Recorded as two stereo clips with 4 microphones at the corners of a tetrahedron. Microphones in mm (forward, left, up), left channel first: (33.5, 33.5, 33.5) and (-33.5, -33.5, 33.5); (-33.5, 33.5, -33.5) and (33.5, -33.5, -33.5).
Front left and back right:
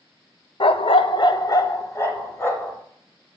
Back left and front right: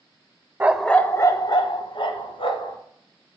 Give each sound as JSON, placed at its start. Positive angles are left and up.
{"t": 0.6, "sound": "a dog barking", "azimuth_deg": 25, "distance_m": 0.5}